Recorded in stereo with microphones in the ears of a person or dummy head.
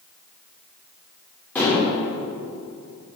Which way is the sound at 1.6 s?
10° left (ahead or behind).